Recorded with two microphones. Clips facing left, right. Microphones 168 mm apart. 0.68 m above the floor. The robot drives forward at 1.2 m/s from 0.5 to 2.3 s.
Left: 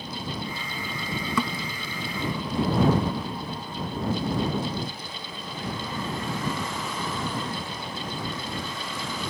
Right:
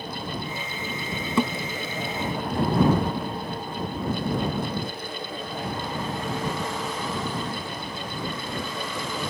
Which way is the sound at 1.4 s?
30° right (ahead or behind).